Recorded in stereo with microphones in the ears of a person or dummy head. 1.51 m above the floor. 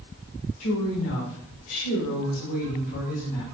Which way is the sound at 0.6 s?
85° left.